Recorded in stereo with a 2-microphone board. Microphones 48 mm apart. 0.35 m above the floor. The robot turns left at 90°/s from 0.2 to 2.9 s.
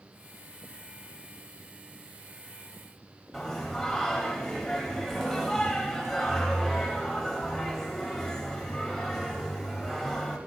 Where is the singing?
5° left (ahead or behind), 1.7 m.